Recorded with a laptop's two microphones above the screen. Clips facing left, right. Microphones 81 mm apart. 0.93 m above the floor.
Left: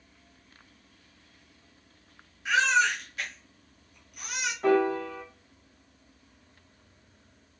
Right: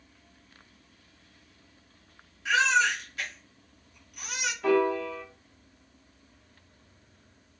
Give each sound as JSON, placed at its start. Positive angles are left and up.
{"t": 2.5, "sound": "a baby crying", "side_deg": 5, "distance_m": 1.6}
{"t": 4.6, "sound": "a piano", "side_deg": 40, "distance_m": 1.2}